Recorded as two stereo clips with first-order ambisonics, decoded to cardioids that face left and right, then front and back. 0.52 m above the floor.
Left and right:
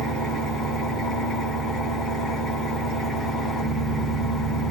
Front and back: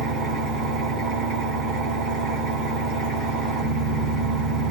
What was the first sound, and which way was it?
An engine running, 145° left.